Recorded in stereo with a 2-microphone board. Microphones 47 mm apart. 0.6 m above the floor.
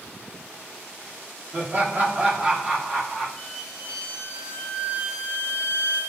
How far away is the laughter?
About 0.8 m.